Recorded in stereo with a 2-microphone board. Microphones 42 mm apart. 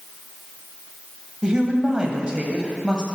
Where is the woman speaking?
20° right (ahead or behind), 1.0 m.